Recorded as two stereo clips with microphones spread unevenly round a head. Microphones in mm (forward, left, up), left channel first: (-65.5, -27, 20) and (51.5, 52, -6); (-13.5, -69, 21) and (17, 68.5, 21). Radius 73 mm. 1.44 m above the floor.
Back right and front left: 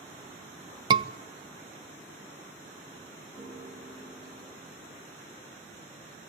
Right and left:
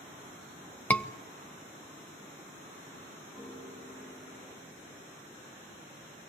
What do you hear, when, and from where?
0.9 s a scream: 20° right, 1.1 m
3.4 s a piano: 40° right, 6.5 m